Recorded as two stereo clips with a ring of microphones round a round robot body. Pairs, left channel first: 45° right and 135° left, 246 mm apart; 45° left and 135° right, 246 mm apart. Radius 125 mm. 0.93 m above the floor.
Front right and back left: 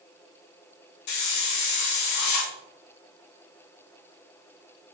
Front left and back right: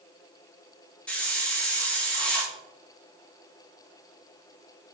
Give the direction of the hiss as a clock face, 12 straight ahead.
1 o'clock.